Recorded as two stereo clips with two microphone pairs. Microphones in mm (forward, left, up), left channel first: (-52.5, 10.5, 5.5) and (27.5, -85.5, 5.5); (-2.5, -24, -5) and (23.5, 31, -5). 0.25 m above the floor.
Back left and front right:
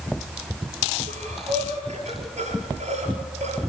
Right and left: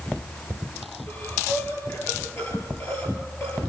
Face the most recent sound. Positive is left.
turn(degrees=-75)